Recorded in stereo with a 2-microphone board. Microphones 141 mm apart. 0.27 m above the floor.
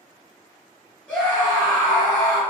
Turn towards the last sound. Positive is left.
turn(degrees=10)  # may be behind; listen again after turning